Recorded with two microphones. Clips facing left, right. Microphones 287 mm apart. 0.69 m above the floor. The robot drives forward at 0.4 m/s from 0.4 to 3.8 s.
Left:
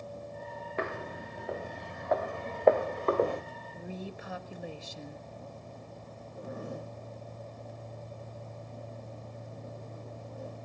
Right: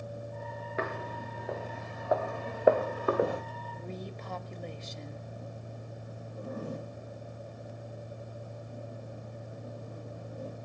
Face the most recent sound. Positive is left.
turn(degrees=-40)  # may be behind; listen again after turning